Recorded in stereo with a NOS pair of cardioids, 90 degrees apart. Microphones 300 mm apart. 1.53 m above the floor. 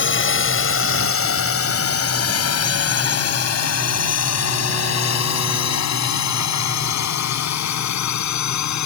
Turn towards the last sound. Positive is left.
turn(degrees=65)